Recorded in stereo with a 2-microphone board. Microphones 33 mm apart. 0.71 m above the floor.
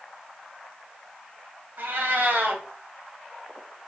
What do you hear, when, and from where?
1.8 s a cat meowing: 85° right, 2.0 m